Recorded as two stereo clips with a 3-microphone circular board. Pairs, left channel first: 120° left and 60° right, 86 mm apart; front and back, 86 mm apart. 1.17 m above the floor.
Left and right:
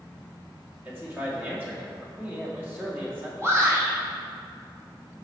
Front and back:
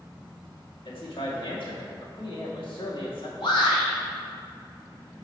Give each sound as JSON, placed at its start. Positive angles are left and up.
{"t": 0.8, "sound": "a man speaking", "azimuth_deg": 5, "distance_m": 2.5}
{"t": 3.4, "sound": "a shout", "azimuth_deg": 0, "distance_m": 2.5}